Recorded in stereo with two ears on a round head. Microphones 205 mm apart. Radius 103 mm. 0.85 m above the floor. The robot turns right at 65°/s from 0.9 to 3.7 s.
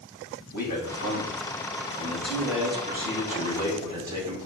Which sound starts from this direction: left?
A man speaking, at 0.5 s.